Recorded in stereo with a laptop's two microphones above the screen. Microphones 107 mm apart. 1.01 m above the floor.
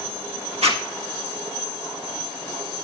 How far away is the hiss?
I don't hear a hiss.